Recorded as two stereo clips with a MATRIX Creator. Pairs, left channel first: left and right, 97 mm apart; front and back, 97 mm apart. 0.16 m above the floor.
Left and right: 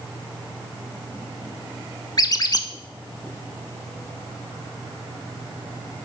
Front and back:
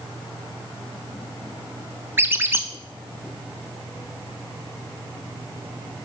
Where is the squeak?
120° left, 0.5 m.